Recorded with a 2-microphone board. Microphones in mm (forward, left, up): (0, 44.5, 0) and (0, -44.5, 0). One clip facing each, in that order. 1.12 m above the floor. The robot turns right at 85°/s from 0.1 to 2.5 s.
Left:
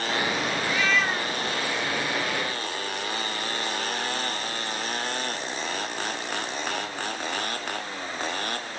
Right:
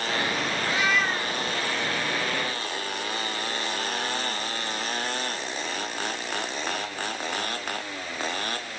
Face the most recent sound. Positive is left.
turn(degrees=120)